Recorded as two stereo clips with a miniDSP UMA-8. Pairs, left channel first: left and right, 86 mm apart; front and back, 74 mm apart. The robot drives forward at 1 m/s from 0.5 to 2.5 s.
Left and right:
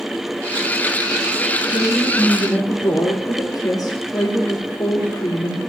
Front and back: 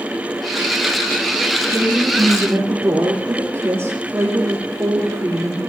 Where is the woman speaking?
115° left, 3.5 m; by 5.6 s 125° left, 4 m.